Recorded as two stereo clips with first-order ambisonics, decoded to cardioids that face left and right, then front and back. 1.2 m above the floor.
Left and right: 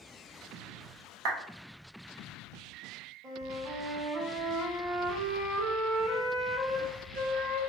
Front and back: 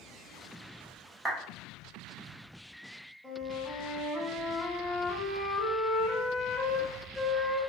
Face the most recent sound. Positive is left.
turn(degrees=-85)